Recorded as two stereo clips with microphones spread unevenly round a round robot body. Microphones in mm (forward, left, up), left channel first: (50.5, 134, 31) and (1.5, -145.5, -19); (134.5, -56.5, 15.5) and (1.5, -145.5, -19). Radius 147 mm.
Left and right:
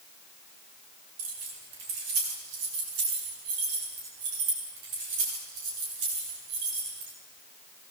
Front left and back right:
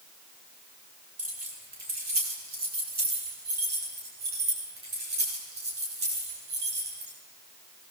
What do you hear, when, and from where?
1.2 s keys jangling: 115° right, 7.5 m; by 7.1 s 140° right, 10 m